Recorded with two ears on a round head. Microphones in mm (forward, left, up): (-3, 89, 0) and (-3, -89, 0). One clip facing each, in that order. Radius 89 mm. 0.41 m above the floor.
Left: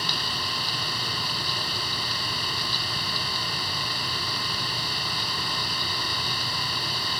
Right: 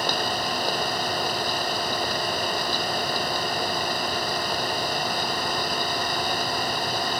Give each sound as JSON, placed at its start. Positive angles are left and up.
{"t": 0.0, "sound": "an engine running", "side_deg": -40}